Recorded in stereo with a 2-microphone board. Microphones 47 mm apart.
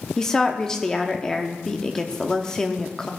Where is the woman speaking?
10° left (ahead or behind), 0.7 m.